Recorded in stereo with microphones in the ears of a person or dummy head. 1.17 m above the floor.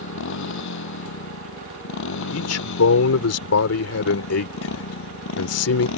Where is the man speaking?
85° left.